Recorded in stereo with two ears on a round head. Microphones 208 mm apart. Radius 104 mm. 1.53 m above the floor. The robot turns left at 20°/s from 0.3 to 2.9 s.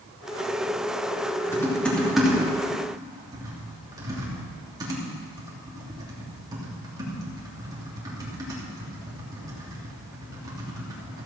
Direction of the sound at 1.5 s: 10° left (ahead or behind).